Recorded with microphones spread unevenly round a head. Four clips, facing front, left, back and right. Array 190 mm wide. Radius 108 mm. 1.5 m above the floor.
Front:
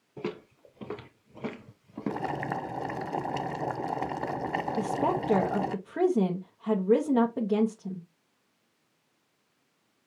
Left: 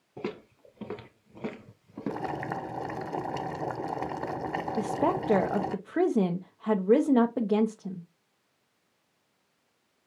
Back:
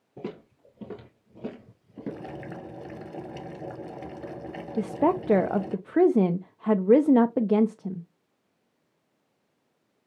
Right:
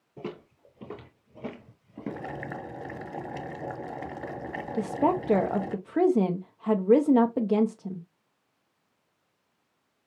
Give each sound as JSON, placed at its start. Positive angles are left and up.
{"t": 0.2, "sound": "footsteps", "azimuth_deg": 105, "distance_m": 1.7}
{"t": 2.1, "sound": "boiling", "azimuth_deg": 15, "distance_m": 0.9}
{"t": 4.8, "sound": "a woman speaking", "azimuth_deg": 175, "distance_m": 0.5}